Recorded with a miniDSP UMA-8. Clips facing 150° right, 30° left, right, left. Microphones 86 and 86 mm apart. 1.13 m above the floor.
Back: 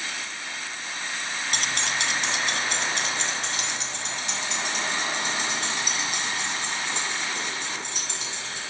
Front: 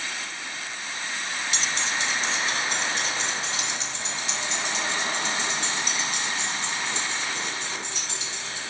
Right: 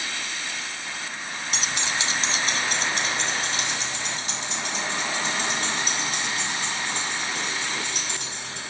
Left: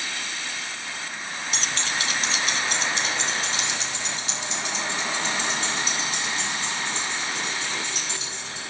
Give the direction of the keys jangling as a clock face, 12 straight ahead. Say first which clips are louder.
Back 1 dB, right 1 dB; 6 o'clock.